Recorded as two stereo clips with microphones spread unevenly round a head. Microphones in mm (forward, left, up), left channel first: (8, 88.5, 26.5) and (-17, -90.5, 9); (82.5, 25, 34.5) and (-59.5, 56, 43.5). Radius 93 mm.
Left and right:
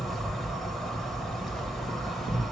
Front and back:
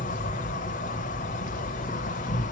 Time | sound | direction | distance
0.0 | an insect | straight ahead | 1.1 m